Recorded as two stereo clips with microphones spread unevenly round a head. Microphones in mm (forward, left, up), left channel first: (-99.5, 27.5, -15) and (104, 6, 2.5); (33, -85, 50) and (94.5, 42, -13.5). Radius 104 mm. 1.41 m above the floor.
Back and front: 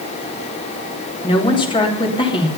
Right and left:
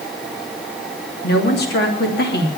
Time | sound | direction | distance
1.2 | a woman speaking | 115° right | 3 m